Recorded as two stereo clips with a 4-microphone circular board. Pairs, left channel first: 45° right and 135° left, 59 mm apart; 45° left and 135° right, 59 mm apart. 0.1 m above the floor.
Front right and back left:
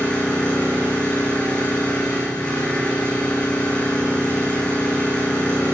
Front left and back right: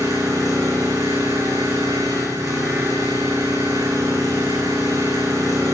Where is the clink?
I don't hear a clink.